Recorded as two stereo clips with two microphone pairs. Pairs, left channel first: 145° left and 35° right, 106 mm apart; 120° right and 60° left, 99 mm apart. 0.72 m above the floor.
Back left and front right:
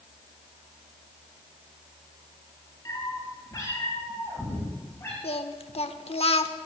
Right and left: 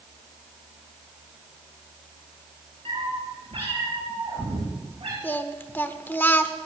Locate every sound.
2.9 s a cat meowing: 85° left, 6 m; by 5.1 s 80° left, 6.5 m
5.2 s singing: 170° left, 0.9 m